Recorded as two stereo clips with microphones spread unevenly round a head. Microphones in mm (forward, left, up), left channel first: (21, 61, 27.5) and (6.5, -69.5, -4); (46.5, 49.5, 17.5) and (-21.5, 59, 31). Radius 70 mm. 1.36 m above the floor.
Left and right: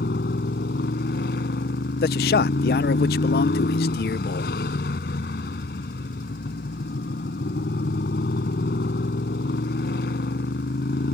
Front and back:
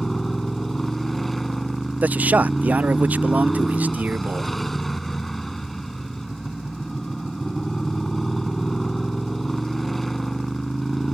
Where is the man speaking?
105° left.